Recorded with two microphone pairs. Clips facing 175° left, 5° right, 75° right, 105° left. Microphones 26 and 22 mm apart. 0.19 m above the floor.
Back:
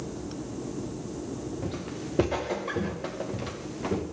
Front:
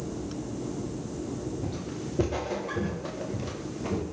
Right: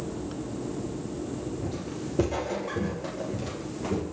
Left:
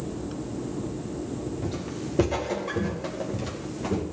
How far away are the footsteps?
About 8 m.